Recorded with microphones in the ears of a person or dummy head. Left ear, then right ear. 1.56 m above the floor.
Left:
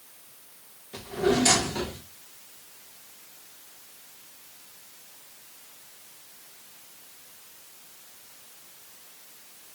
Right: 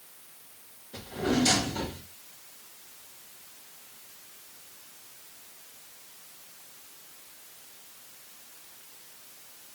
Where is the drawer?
20° left (ahead or behind), 1.0 m.